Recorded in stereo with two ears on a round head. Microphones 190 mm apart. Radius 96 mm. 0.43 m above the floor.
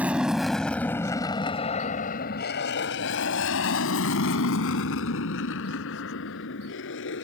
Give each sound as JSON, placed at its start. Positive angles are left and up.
{"t": 0.0, "sound": "an aircraft", "side_deg": -5}